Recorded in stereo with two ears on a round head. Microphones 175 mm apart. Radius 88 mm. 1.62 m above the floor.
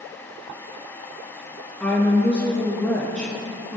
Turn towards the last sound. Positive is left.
turn(degrees=5)  # may be behind; listen again after turning